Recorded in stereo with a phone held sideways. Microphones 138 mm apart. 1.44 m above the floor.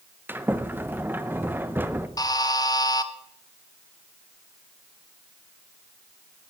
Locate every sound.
0.3 s a sliding door: 15° right (ahead or behind), 0.7 m
2.2 s a buzzer: 30° left (ahead or behind), 0.9 m